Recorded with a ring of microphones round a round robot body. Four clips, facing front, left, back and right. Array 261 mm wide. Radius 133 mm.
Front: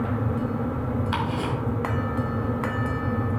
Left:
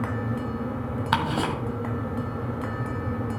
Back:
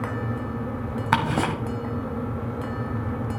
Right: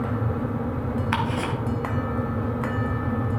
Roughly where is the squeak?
No squeak in this recording.